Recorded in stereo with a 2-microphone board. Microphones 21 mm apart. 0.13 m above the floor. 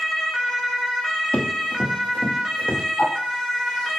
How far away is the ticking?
About 4.5 m.